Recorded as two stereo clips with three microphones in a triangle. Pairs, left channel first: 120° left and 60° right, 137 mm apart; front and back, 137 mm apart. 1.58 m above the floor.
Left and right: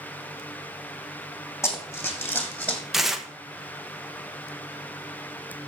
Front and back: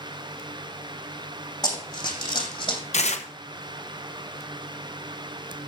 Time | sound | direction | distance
1.6 | running footsteps | 55° left | 3 m
2.9 | tearing paper | 25° left | 1.0 m